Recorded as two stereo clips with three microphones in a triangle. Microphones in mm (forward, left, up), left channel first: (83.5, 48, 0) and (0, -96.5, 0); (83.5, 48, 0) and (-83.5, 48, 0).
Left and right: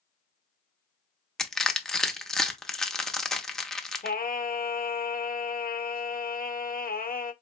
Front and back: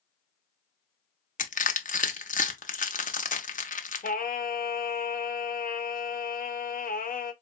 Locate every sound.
1.4 s crushing: 25° right, 0.6 m
4.0 s singing: 30° left, 0.5 m